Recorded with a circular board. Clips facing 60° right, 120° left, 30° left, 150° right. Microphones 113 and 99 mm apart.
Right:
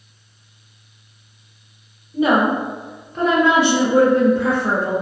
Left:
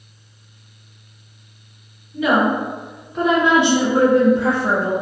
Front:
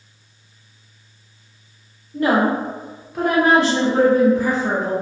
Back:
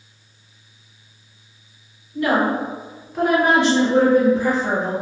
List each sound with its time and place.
2.1 s a woman speaking: 15° right, 0.8 m; by 4.9 s 160° left, 1.3 m